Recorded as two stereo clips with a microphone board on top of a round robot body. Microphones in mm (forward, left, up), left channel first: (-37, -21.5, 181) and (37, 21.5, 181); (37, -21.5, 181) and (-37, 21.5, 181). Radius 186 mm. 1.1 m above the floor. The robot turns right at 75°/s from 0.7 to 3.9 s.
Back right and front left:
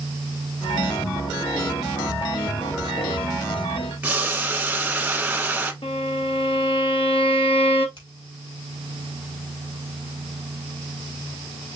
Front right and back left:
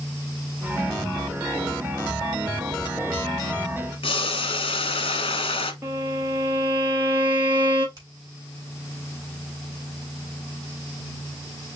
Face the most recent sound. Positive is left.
turn(degrees=-160)